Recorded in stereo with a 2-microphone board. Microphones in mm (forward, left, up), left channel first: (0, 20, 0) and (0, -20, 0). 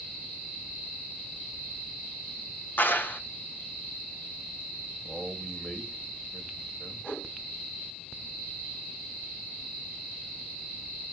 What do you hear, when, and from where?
2.8 s a clap: 55° left (ahead or behind), 0.9 m
5.0 s a man speaking: 25° left (ahead or behind), 1.9 m
7.0 s a whoosh: 65° left (ahead or behind), 7 m